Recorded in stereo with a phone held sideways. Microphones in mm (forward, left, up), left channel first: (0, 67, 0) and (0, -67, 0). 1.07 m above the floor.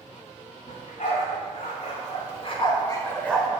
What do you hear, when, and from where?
0.7 s a dog barking: 70° left (ahead or behind), 2 m; by 3.5 s centre (ahead or behind), 0.9 m